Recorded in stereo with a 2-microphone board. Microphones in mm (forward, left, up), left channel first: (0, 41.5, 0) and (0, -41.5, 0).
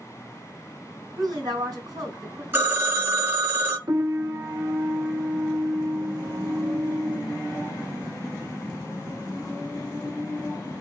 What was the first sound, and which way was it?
A woman speaking, 55° right (ahead or behind).